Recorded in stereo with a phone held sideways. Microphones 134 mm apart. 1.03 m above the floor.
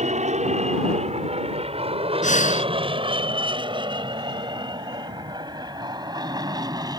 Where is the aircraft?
55° right (ahead or behind); by 7.0 s 25° right (ahead or behind).